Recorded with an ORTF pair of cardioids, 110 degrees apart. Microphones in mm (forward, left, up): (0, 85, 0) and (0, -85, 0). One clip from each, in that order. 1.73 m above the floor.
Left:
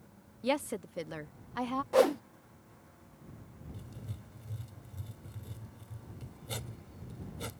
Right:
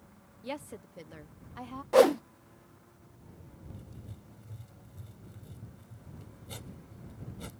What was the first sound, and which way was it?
A woman speaking, 45° left.